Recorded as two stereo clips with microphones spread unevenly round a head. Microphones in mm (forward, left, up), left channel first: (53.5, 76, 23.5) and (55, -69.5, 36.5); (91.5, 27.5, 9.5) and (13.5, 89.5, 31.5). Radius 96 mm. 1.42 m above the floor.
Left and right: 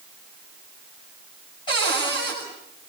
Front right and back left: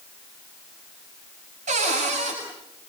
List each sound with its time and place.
1.7 s a cupboard door: 160° left, 8.5 m